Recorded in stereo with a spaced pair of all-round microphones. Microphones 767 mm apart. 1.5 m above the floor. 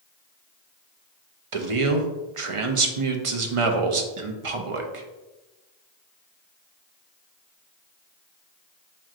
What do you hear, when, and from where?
1.5 s a man speaking: 45° right (ahead or behind), 0.6 m